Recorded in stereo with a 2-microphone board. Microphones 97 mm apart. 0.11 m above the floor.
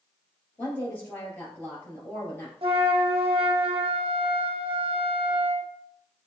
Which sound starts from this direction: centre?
A woman speaking, at 0.6 s.